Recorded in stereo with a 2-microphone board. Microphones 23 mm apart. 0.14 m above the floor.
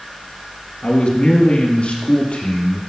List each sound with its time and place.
0.8 s a man speaking: 50° left (ahead or behind), 2.5 m; by 2.8 s 70° left (ahead or behind), 4.5 m